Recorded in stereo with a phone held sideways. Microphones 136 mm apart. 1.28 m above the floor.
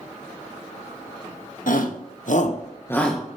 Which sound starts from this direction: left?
A shout, at 1.7 s.